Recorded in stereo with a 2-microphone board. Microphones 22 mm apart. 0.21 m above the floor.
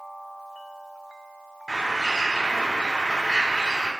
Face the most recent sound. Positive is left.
turn(degrees=-35)  # may be behind; listen again after turning